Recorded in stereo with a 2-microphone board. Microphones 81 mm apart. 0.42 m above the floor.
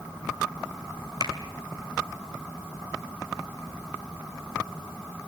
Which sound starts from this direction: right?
A finger snap, at 1.2 s.